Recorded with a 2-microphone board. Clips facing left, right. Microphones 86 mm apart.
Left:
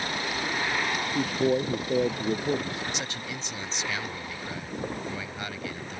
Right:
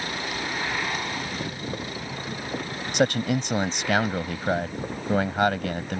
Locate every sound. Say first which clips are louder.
1.1 s a man speaking: left 8 dB; 80° left; by 2.8 s 85° left
2.9 s a man speaking: right 13 dB; 65° right (ahead or behind)